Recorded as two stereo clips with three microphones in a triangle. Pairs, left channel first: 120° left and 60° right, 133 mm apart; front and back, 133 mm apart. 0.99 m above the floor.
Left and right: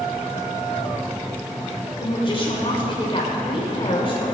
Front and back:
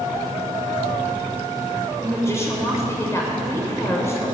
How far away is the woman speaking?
About 3 m.